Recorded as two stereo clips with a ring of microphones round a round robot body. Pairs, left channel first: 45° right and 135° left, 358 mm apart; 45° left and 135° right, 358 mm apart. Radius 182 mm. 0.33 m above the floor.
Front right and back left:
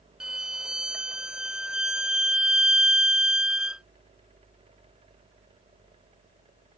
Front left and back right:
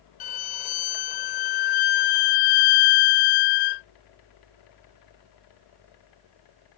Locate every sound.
0.2 s a violin: 45° left